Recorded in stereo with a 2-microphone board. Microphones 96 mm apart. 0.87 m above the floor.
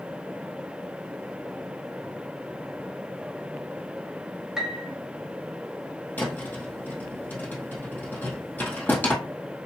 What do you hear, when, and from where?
4.6 s a piano: 5° right (ahead or behind), 0.8 m
6.2 s a thud: 20° left (ahead or behind), 1.7 m